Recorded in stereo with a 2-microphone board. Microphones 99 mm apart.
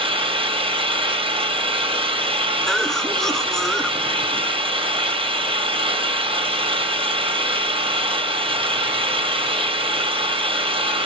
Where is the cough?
5° left (ahead or behind), 1.3 m.